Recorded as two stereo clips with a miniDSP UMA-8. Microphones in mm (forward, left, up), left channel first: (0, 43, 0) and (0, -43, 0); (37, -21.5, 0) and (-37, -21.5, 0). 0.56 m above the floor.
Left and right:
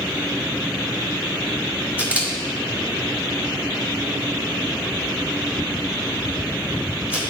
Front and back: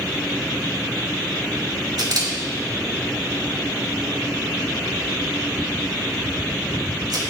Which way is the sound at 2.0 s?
165° right.